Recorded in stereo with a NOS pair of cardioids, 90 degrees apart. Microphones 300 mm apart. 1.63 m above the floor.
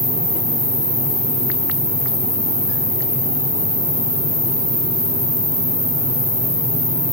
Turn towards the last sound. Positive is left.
turn(degrees=5)